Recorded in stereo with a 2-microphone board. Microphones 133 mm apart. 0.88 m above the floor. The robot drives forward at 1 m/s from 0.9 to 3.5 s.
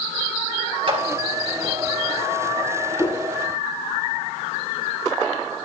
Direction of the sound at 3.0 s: 35° left (ahead or behind).